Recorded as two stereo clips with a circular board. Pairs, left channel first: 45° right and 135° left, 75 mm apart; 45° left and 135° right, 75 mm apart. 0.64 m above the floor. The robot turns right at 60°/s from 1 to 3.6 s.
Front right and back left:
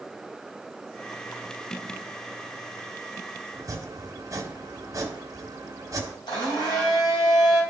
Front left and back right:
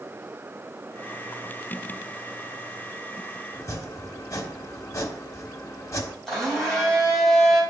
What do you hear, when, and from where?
3.5 s chopping: 85° left, 1.4 m; by 6.2 s 90° left, 1.4 m
6.3 s a blender: 40° right, 4 m